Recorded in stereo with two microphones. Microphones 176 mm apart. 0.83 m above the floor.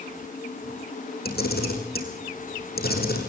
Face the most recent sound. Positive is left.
turn(degrees=60)  # may be behind; listen again after turning